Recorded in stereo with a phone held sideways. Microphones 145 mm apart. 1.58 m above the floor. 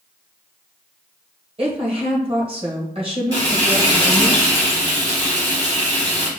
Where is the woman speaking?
35° right (ahead or behind), 1.4 m.